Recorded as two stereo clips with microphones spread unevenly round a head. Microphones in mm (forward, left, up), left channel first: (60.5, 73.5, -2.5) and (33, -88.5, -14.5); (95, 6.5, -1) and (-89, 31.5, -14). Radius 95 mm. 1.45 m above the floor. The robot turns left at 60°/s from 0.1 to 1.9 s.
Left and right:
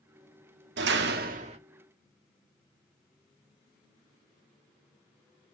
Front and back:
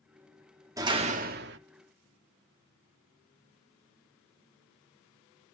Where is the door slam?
110° right, 1.7 m; by 1.6 s 160° right, 1.7 m.